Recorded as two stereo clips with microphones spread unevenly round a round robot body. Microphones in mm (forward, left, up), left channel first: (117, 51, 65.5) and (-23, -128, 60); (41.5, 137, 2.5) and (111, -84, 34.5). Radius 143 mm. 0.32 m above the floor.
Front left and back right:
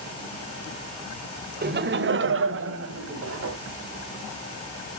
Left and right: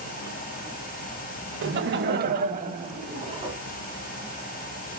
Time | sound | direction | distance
1.6 | laughter | 105° right | 1.4 m